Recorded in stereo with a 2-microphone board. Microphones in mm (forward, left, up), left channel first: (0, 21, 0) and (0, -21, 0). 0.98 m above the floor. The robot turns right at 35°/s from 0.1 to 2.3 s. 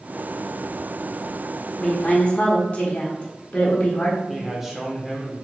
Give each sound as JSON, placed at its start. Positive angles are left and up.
{"t": 1.8, "sound": "a woman speaking", "side_deg": 15, "distance_m": 1.0}
{"t": 4.3, "sound": "a man speaking", "side_deg": -5, "distance_m": 0.7}